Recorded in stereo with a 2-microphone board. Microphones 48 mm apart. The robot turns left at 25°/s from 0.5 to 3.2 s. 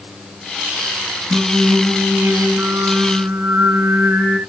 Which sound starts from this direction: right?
Singing, at 1.3 s.